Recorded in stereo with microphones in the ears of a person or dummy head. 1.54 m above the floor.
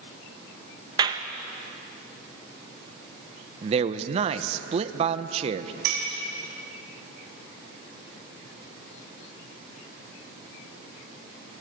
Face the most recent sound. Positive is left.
turn(degrees=-70)  # may be behind; listen again after turning